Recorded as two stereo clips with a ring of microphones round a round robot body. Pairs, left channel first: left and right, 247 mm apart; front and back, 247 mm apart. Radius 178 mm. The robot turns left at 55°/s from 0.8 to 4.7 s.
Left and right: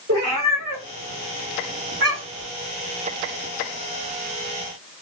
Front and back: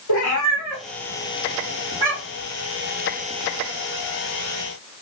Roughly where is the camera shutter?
I don't hear a camera shutter.